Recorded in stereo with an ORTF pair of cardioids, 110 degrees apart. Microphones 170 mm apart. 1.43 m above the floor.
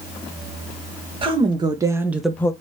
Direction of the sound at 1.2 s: 30° right.